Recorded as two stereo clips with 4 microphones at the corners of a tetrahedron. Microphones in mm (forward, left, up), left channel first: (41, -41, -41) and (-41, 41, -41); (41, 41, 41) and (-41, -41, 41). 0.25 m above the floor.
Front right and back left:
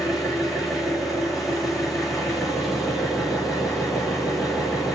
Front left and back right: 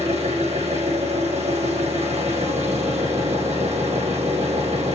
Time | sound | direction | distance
0.0 | an engine running | 135° right | 4 m